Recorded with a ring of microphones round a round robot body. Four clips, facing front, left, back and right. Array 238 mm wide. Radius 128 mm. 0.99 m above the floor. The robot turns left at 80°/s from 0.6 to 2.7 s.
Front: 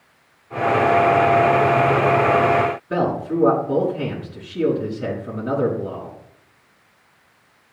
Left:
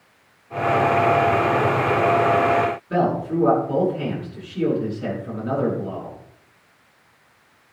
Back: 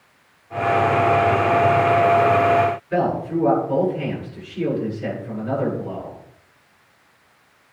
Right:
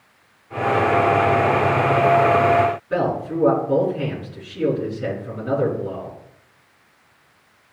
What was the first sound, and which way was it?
A man speaking, 10° left.